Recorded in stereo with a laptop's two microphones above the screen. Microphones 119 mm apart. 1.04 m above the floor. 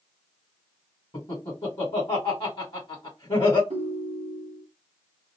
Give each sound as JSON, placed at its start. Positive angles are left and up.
{"t": 1.1, "sound": "laughter", "side_deg": 45, "distance_m": 1.5}
{"t": 3.7, "sound": "a ringtone", "side_deg": -70, "distance_m": 1.1}